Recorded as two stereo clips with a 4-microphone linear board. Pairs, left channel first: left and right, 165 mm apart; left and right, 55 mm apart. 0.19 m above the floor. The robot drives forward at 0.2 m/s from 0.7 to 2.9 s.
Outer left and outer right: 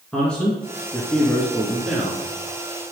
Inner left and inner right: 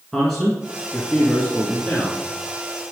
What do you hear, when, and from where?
0.1 s a man speaking: 5° left (ahead or behind), 2 m